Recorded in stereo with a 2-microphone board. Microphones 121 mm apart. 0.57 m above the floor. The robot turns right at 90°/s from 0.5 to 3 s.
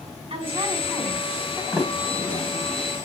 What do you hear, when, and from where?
0.3 s a woman speaking: 55° right, 5 m; by 1.6 s 45° left, 5 m
1.7 s a sliding door: 5° right (ahead or behind), 1.9 m; by 2.7 s 80° right, 1.9 m